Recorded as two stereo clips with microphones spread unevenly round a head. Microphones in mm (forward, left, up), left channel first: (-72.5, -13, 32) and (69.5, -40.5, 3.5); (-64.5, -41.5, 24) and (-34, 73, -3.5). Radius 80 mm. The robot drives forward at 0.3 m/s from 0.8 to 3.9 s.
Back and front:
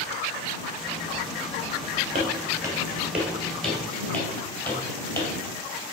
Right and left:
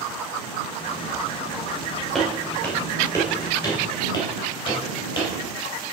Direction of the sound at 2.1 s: 50° right.